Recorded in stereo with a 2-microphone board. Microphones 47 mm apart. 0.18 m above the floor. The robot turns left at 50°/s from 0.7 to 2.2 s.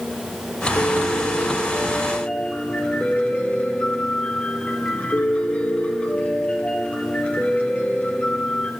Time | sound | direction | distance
0.8 | a piano | 100° left | 2.5 m